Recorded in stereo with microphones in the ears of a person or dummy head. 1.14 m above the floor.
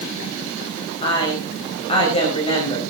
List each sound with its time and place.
1.0 s a woman speaking: 30° left (ahead or behind), 5 m